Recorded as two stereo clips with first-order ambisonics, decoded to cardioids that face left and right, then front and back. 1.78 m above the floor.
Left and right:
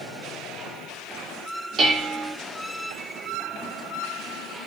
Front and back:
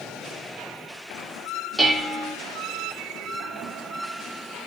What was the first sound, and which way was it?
Dishes clattering, 100° right.